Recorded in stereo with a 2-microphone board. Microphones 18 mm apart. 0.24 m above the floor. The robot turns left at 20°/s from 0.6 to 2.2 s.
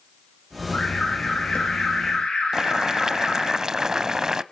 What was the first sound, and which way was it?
An alarm, 70° left (ahead or behind).